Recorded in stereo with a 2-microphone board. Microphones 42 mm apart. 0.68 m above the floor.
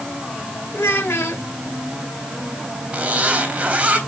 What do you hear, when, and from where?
0.7 s a child speaking: 75° left (ahead or behind), 1.4 m
2.9 s a zipper: 30° right (ahead or behind), 3 m